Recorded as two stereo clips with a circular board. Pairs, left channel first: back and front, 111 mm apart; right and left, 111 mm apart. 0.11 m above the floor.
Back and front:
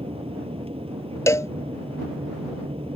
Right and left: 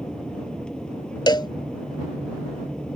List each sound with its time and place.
0.0 s an aircraft: 10° right
1.3 s a cowbell: 125° right